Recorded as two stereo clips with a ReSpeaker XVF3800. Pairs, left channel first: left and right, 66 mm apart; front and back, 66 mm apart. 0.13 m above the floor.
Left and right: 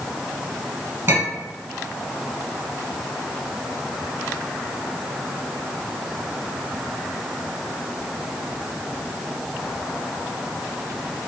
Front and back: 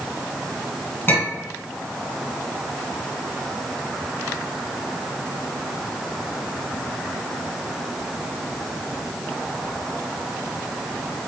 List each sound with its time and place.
1.1 s a clink: 50° right, 1.4 m